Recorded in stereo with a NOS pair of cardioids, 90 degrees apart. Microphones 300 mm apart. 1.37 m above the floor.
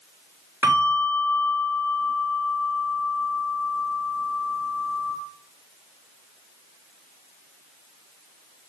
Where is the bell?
5° right, 4 m.